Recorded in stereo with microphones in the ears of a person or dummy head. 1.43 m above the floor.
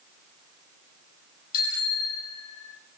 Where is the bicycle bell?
50° left (ahead or behind), 6 m; by 2.8 s 60° left (ahead or behind), 4.5 m.